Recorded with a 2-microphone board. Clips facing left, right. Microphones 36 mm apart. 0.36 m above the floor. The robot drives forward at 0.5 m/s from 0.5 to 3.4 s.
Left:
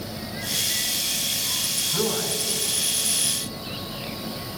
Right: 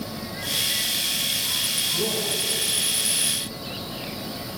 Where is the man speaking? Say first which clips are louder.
Even; 70° left (ahead or behind), 3 m; by 2.4 s 65° left (ahead or behind), 3 m.